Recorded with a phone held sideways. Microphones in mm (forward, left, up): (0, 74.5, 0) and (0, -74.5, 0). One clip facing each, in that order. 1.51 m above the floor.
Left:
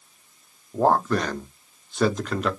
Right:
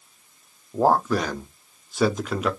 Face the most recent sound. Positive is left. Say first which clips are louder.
# even
turn(degrees=-5)  # may be behind; listen again after turning